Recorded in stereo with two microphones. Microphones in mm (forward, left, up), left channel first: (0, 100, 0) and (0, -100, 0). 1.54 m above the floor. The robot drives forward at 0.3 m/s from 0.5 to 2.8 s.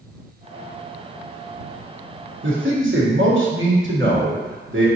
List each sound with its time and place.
2.4 s a man speaking: 80° right, 1.2 m